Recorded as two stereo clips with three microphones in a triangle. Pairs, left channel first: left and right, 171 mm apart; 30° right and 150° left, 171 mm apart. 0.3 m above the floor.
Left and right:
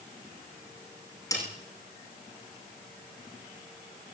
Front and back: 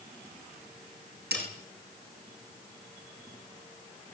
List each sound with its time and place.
1.3 s a snare drum: 160° left, 8.5 m